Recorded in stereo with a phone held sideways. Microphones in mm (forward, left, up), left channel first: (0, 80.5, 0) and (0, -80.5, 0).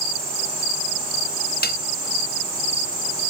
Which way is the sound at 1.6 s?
85° left.